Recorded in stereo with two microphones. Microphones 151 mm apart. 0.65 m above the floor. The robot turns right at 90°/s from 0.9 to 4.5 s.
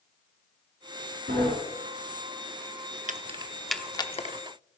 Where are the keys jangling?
55° right (ahead or behind), 0.7 m; by 4.4 s 55° left (ahead or behind), 0.7 m.